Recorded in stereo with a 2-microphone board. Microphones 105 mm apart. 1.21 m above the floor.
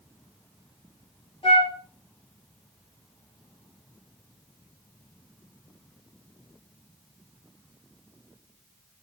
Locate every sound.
1.4 s a flute: 60° left (ahead or behind), 3 m